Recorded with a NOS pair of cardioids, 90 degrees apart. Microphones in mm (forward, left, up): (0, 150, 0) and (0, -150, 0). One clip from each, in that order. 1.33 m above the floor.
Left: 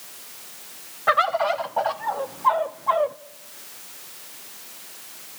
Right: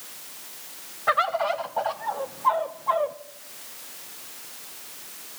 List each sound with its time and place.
1.1 s a bird: 15° left, 0.7 m